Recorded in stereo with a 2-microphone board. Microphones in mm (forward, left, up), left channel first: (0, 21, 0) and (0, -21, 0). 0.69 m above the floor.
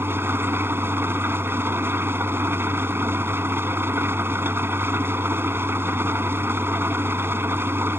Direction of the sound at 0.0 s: 65° right (ahead or behind).